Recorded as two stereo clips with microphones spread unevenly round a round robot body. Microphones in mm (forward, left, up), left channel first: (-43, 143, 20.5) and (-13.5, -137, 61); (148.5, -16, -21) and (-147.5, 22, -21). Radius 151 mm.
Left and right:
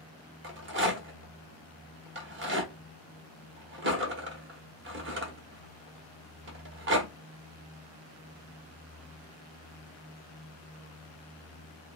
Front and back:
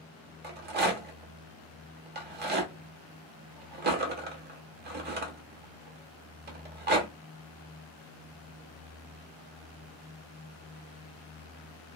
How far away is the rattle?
About 1.2 m.